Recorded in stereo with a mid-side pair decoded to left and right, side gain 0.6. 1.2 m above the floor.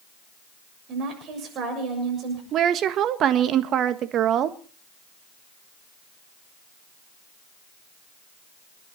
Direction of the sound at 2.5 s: 55° right.